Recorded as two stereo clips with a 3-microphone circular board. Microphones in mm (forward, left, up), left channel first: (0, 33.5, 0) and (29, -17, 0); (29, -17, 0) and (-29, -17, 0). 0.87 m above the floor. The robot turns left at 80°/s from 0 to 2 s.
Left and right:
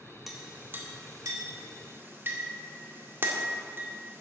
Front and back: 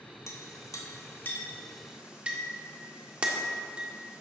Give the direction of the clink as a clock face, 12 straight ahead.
11 o'clock.